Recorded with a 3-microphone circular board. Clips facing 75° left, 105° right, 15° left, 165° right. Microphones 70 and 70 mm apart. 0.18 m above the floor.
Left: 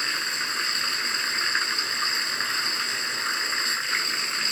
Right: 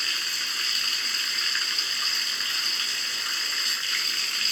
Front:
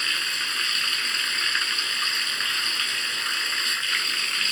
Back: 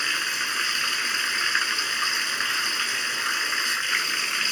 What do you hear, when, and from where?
0.0 s running water: 125° left, 1.4 m